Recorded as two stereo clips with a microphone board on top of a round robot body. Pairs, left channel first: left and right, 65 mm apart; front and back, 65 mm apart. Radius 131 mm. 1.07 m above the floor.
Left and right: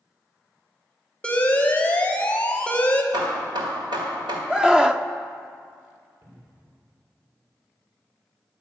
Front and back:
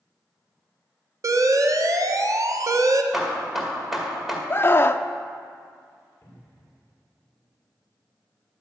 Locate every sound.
1.2 s an alarm: 160° left, 1.4 m
3.1 s hammering: 90° right, 1.8 m
4.5 s a scream: 20° right, 0.7 m
6.2 s a cupboard door: 55° right, 4.5 m